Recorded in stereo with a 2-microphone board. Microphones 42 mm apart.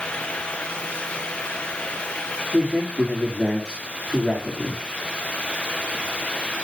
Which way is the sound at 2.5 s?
15° right (ahead or behind).